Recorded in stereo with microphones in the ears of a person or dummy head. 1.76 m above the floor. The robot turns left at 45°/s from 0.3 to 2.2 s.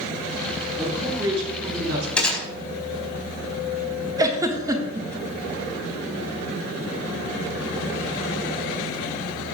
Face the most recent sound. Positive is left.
turn(degrees=-20)  # may be behind; listen again after turning